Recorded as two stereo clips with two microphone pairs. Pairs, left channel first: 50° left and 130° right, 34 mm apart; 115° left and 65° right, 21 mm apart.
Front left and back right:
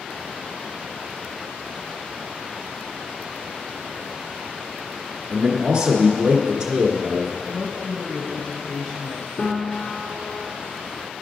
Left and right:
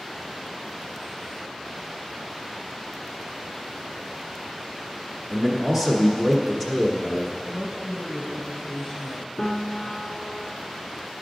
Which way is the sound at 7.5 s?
70° left.